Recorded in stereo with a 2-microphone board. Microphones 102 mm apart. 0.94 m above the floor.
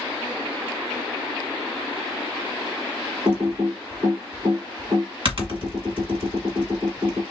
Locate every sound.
3.2 s typing on a keyboard: 60° right (ahead or behind), 1.6 m